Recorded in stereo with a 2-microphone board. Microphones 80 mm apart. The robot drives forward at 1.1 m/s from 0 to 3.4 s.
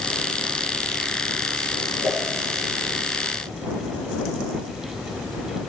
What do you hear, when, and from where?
2.0 s a whoosh: 45° right (ahead or behind), 3.5 m